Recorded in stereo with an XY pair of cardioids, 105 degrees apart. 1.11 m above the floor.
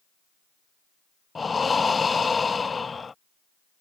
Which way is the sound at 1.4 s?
30° left.